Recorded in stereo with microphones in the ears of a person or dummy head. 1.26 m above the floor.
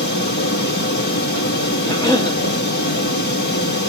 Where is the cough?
25° left (ahead or behind), 1.1 m.